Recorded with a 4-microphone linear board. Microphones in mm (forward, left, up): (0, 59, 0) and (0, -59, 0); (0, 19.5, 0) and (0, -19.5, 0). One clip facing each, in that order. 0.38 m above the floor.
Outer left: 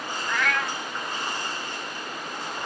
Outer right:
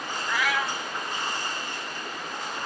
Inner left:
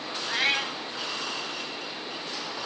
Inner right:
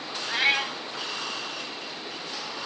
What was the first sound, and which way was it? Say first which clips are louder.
A cat meowing: even, inner right 2 dB; 5° right (ahead or behind).